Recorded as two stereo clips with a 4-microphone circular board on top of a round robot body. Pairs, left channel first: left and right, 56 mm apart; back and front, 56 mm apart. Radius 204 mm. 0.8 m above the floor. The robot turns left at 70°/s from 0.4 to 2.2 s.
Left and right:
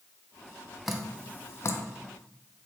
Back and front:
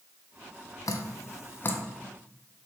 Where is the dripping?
175° right, 0.5 m; by 1.8 s 120° left, 0.5 m.